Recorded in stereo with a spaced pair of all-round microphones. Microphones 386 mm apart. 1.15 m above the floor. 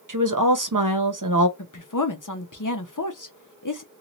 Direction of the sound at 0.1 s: 55° right (ahead or behind).